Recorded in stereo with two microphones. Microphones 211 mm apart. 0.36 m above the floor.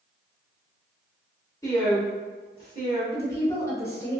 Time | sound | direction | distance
1.6 | a woman speaking | 20° left (ahead or behind) | 0.9 m
3.1 | a woman speaking | 15° left (ahead or behind) | 1.0 m